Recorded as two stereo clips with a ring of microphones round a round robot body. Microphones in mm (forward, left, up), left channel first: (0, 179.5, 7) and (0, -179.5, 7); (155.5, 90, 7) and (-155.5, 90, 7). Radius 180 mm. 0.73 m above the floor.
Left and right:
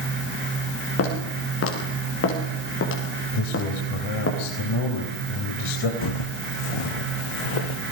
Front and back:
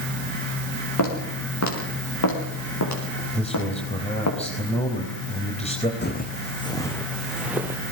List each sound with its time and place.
1.0 s footsteps: 35° left, 8 m; by 4.3 s 30° left, 6 m
3.3 s a man speaking: 70° left, 3.5 m
6.0 s footsteps: 55° left, 2.5 m; by 7.8 s 100° left, 3.5 m